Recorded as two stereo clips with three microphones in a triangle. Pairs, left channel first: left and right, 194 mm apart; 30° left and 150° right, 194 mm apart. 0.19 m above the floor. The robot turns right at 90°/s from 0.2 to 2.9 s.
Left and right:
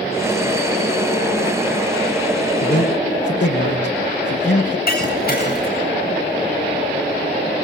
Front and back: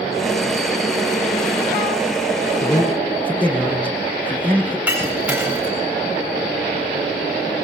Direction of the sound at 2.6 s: 85° left.